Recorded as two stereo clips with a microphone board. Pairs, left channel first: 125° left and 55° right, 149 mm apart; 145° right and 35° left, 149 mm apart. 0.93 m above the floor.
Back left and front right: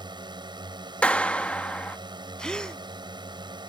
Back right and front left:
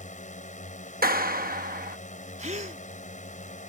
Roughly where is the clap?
Ahead left.